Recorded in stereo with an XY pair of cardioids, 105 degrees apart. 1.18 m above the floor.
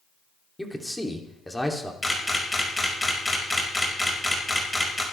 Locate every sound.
0.6 s a man speaking: 5° left, 2.5 m
2.0 s a camera shutter: 10° left, 5 m